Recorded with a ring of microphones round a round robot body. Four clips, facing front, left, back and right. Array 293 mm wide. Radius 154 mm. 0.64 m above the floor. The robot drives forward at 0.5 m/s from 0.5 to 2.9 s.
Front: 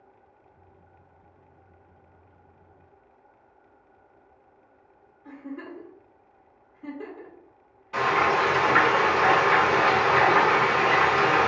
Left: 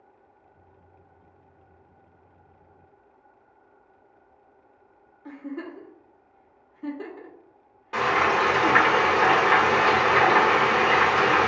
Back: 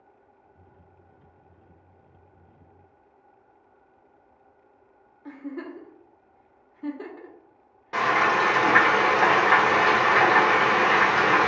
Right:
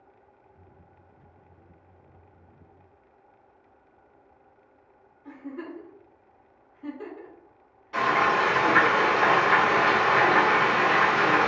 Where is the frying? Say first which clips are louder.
Left 1 dB, even; 140° left, 1.2 m.